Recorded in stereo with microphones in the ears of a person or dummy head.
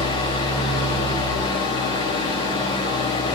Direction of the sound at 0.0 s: 25° left (ahead or behind).